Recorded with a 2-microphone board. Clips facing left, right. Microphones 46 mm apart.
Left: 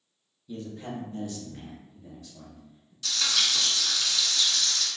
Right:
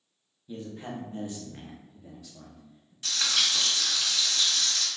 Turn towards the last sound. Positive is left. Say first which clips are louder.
# even
turn(degrees=-40)  # may be behind; listen again after turning